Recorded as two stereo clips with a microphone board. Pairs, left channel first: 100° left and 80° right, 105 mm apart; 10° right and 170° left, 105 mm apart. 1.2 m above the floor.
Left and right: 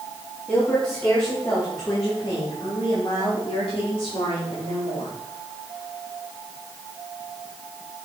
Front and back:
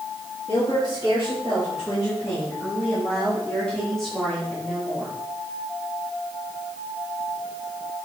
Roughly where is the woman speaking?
Ahead left.